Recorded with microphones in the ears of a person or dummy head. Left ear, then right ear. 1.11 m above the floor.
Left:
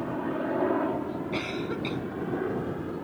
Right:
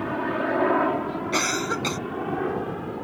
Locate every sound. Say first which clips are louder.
0.0 s a helicopter: right 5 dB; 60° right (ahead or behind); by 3.0 s 25° right (ahead or behind)
1.3 s a cough: right 10 dB; 55° right (ahead or behind)